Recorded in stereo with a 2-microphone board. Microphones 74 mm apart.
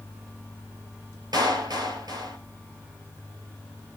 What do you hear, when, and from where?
1.3 s a clap: 65° right (ahead or behind), 3 m